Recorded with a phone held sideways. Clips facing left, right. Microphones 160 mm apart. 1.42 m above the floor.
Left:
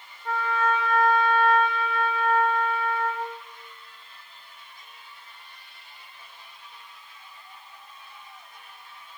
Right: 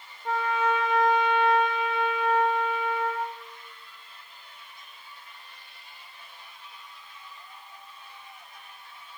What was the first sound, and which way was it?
A trumpet, 20° right (ahead or behind).